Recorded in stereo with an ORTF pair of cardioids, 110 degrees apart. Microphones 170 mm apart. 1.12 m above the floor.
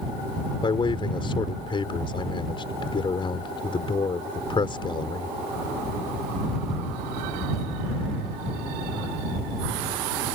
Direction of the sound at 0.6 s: 30° left.